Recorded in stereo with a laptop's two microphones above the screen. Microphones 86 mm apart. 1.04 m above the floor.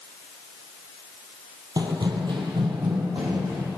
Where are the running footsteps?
50° right (ahead or behind), 1.6 m; by 3.7 s 65° right (ahead or behind), 3.5 m.